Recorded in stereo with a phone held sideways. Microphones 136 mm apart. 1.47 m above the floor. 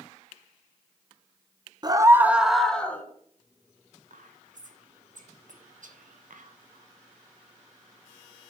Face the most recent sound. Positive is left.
turn(degrees=-70)  # may be behind; listen again after turning